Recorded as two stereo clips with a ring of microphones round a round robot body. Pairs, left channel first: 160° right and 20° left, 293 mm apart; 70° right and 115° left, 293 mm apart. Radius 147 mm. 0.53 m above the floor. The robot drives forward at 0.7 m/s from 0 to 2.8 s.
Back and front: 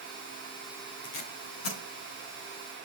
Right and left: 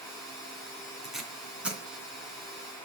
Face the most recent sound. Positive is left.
turn(degrees=-165)